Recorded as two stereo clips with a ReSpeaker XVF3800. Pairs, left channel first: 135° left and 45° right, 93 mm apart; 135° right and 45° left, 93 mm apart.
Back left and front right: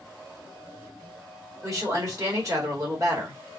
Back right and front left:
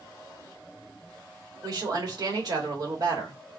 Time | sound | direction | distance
1.6 | a woman speaking | 5° left | 1.6 m